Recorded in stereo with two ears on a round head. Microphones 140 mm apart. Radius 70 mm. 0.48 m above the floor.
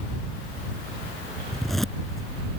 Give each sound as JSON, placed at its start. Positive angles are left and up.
{"t": 1.5, "sound": "a zipper", "side_deg": 0}